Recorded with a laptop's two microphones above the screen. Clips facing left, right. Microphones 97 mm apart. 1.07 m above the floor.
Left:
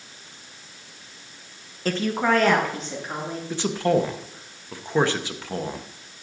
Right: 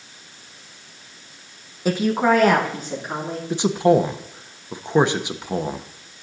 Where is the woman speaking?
10° right (ahead or behind), 0.5 m.